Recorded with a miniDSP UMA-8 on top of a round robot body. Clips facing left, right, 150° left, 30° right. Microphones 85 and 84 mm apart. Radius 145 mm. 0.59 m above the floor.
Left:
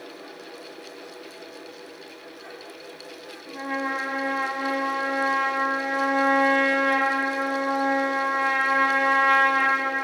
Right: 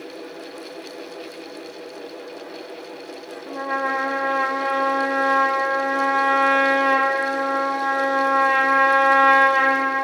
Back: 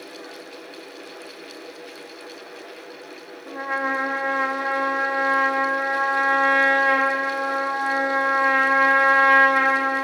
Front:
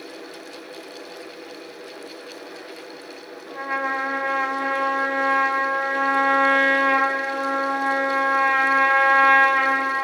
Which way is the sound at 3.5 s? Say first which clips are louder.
Right 5 dB, even; 135° right.